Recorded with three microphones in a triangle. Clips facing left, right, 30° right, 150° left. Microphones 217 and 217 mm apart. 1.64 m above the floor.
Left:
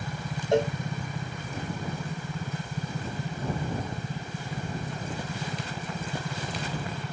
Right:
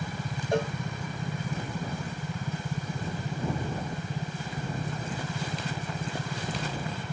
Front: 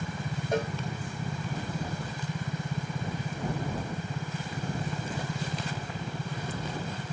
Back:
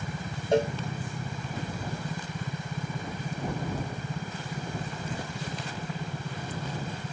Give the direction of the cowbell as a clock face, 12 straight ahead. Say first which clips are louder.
Left 4 dB, back 6 dB; 8 o'clock.